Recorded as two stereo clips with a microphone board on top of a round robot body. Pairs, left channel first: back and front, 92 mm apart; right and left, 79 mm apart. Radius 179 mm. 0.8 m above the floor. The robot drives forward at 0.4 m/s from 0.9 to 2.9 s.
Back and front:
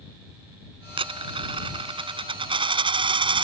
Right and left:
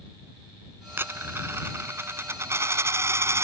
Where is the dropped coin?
25° left; by 3.5 s 30° left.